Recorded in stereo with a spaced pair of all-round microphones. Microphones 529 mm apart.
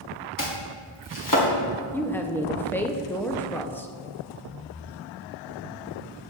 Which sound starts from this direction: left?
Chopping, at 0.4 s.